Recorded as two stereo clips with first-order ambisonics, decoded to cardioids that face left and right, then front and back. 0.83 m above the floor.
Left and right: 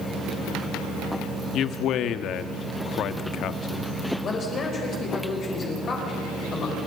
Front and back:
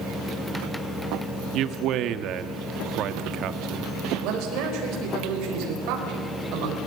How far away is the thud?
I don't hear a thud.